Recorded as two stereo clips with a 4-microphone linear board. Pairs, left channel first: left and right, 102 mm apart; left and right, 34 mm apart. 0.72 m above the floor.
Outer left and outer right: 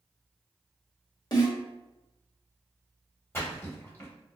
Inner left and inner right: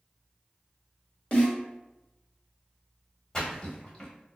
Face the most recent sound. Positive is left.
turn(degrees=25)  # may be behind; listen again after turning